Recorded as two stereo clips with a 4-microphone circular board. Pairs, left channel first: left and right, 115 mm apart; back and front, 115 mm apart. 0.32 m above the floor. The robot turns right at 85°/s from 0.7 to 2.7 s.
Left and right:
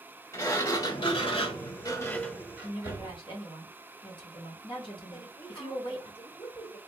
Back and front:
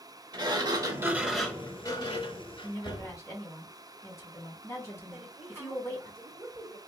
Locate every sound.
0.3 s a sliding door: 35° left, 1.0 m; by 3.2 s 155° right, 1.0 m
2.6 s a woman speaking: 115° left, 2 m; by 6.1 s 120° left, 2 m
5.1 s a woman speaking: 75° left, 1.7 m